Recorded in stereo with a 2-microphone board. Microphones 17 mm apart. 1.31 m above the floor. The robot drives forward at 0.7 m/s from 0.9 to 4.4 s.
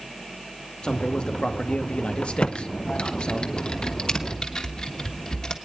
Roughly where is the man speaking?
Left.